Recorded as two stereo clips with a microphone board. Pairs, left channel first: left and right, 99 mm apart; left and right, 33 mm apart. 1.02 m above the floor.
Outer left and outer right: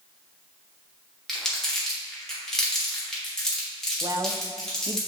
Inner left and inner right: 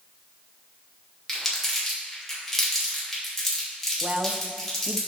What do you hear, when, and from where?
1.3 s crumpling: 5° left (ahead or behind), 2.5 m
4.0 s a woman speaking: 35° right (ahead or behind), 0.6 m